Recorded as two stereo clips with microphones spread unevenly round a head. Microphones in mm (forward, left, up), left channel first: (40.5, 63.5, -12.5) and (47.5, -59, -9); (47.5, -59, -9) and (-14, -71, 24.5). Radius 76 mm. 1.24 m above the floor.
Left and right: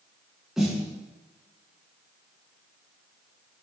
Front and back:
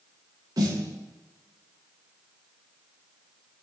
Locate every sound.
0.6 s a snare drum: 175° right, 5 m